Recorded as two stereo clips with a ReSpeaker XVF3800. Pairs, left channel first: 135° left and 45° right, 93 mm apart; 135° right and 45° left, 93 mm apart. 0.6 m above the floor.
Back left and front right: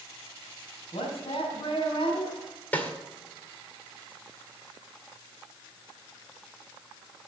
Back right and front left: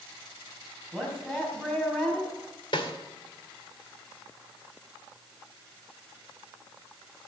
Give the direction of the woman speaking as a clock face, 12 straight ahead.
7 o'clock.